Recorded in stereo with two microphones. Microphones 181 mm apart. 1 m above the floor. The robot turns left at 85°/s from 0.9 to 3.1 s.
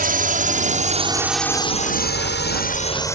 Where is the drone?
50° right (ahead or behind); by 3.1 s 15° left (ahead or behind).